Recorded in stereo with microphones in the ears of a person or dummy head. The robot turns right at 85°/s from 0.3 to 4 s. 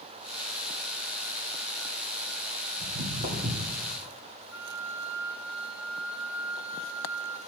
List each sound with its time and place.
2.8 s footsteps: 55° right (ahead or behind), 2.5 m; by 3.8 s 5° right (ahead or behind), 3 m
4.5 s a flute: 5° right (ahead or behind), 0.9 m